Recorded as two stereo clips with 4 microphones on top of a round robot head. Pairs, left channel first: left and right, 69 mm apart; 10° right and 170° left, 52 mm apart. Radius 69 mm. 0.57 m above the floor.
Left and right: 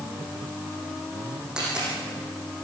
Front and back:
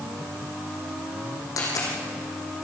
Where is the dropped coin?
10° right, 6.5 m.